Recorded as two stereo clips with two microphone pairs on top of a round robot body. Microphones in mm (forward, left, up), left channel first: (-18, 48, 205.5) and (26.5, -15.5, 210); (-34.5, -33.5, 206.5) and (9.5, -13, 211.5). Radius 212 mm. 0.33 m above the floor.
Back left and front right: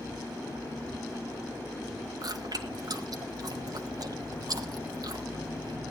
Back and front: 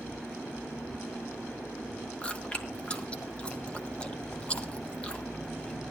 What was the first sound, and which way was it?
Chewing, 90° right.